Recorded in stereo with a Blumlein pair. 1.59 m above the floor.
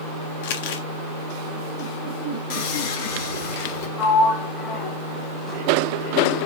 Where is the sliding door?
25° left, 1.3 m.